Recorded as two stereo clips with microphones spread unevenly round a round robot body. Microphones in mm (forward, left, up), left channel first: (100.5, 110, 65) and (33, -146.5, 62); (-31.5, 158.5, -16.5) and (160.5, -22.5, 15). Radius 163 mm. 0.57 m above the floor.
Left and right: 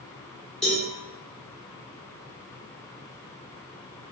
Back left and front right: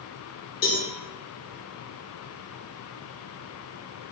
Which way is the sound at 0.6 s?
165° left.